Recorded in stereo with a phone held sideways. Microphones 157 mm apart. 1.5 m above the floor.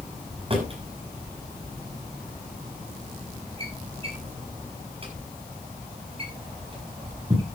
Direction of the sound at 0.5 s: 35° right (ahead or behind).